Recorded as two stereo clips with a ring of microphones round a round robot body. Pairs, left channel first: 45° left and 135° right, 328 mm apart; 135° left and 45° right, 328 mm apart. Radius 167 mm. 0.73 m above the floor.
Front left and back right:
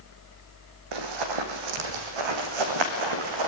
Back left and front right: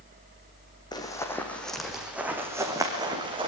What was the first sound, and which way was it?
Running footsteps, 145° right.